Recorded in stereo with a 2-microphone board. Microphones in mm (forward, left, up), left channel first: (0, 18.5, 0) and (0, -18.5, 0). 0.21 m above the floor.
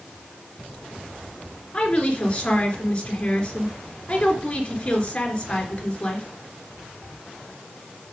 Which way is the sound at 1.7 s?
30° left (ahead or behind).